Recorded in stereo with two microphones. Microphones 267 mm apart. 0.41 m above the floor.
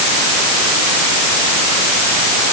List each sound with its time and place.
Only background noise.